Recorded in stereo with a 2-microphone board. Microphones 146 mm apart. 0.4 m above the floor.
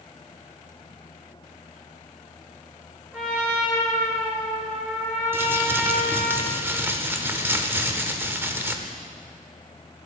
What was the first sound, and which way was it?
A trumpet, 10° right (ahead or behind).